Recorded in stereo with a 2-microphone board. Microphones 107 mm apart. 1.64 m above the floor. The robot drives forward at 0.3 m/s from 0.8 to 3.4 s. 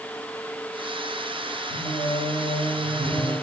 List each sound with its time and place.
1.7 s singing: 65° left (ahead or behind), 3.5 m; by 3.3 s 70° left (ahead or behind), 3.5 m